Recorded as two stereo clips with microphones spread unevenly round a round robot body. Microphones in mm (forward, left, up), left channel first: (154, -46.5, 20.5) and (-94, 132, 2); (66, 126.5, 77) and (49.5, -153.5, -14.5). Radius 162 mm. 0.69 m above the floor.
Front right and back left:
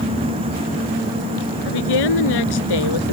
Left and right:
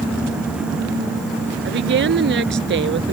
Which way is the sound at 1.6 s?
45° right.